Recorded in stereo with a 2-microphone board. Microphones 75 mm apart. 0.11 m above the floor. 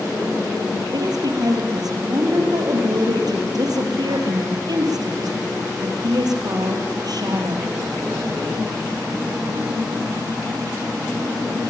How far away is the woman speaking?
About 3.5 m.